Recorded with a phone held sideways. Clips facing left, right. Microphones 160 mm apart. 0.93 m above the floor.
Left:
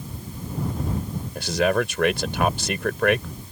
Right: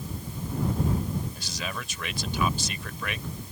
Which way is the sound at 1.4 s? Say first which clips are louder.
Left 15 dB; 70° left (ahead or behind).